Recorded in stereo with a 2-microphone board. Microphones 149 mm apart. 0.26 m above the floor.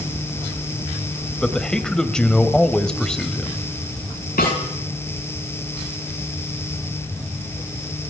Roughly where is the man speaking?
Centre.